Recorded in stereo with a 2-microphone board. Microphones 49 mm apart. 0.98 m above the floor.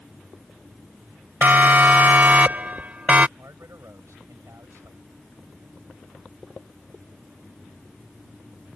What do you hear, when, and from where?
1.4 s a siren: 40° right (ahead or behind); by 3.3 s 30° right (ahead or behind)
3.4 s a man speaking: 75° right (ahead or behind)